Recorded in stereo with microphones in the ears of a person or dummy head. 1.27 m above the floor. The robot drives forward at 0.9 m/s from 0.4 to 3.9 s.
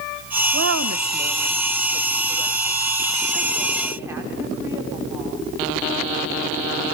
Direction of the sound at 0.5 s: 75° right (ahead or behind).